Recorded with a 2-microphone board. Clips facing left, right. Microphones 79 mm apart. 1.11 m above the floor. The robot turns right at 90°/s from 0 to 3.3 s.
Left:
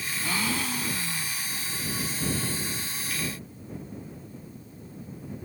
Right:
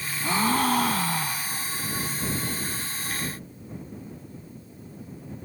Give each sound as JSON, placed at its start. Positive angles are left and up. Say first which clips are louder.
{"t": 0.2, "sound": "a gasp", "louder": "right 8 dB", "azimuth_deg": -160}